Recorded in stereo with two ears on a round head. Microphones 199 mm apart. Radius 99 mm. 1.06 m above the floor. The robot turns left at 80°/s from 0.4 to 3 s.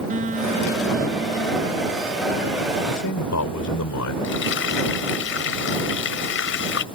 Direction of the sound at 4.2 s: 60° left (ahead or behind).